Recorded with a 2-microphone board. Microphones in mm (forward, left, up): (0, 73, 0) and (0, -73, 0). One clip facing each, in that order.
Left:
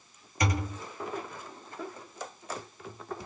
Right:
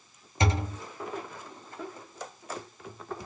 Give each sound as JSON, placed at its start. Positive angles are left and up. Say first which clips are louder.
{"t": 0.4, "sound": "a thud", "louder": "right 2 dB", "side_deg": -25, "distance_m": 0.6}